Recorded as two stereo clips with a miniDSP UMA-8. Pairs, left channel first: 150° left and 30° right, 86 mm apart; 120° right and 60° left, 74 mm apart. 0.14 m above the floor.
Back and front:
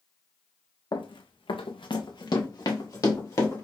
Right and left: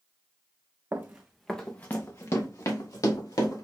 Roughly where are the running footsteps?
Behind left.